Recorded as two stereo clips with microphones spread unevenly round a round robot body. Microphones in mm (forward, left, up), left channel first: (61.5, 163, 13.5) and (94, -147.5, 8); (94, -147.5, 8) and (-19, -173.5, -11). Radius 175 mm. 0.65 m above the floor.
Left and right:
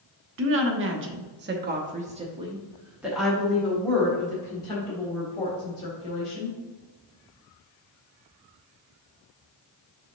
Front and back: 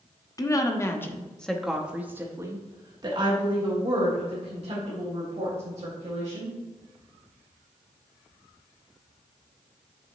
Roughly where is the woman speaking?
Ahead right.